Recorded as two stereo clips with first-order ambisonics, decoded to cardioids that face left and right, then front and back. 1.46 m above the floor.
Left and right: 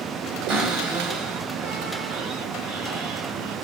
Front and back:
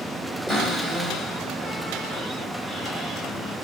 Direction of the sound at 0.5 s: 65° right.